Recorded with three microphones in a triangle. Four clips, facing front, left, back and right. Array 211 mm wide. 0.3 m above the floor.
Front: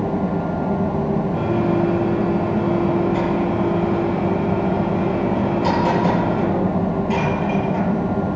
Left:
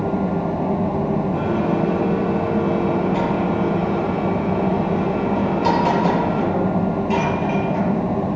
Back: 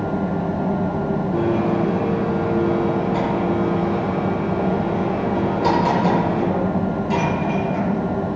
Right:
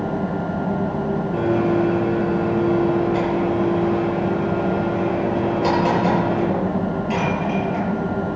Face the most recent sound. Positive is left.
turn(degrees=-125)